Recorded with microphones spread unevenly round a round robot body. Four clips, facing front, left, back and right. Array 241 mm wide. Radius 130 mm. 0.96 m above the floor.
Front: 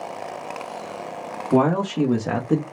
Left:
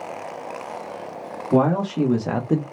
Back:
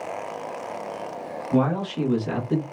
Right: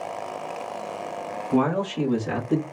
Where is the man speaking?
50° left, 1.9 m; by 2.6 s 55° left, 1.1 m.